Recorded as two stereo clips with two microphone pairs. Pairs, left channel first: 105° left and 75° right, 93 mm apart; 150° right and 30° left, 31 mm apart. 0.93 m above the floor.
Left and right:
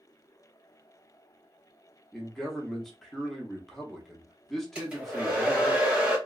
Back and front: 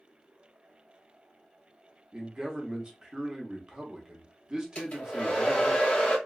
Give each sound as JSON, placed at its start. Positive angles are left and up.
{"t": 2.1, "sound": "a man speaking", "azimuth_deg": 20, "distance_m": 0.8}
{"t": 4.8, "sound": "a hair dryer", "azimuth_deg": -150, "distance_m": 1.3}